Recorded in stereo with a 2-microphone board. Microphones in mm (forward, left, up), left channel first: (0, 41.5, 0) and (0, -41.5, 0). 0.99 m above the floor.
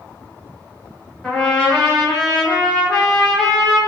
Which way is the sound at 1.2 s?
15° left (ahead or behind).